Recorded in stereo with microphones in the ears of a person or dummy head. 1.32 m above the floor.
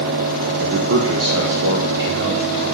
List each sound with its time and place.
0.6 s a man speaking: 55° right (ahead or behind), 0.8 m; by 2.6 s 60° right (ahead or behind), 2.5 m